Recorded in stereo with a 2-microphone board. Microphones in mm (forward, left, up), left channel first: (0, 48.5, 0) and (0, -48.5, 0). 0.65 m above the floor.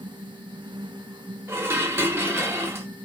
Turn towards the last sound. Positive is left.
turn(degrees=-25)  # may be behind; listen again after turning